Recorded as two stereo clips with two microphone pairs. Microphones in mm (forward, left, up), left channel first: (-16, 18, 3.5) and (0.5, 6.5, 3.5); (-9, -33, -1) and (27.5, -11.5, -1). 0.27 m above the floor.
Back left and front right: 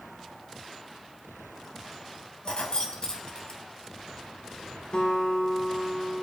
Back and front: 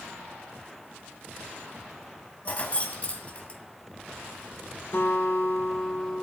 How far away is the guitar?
About 3 m.